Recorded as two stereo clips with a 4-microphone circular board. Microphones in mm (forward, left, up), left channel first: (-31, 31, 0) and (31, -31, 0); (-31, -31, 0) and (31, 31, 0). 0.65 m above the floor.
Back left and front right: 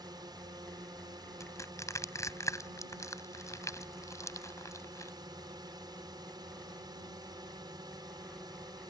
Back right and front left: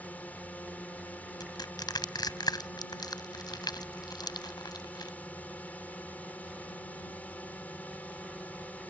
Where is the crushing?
170° right.